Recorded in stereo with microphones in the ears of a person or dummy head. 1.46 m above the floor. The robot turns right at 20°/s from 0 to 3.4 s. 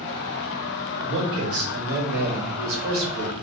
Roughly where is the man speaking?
Behind right.